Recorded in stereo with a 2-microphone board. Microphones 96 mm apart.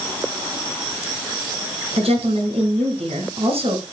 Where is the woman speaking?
80° right, 5 m.